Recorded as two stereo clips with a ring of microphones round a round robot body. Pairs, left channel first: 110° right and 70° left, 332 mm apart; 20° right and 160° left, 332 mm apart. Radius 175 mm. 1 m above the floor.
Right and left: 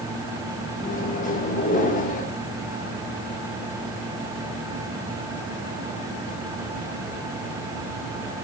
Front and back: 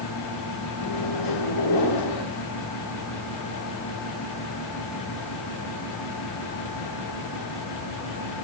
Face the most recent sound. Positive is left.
turn(degrees=-45)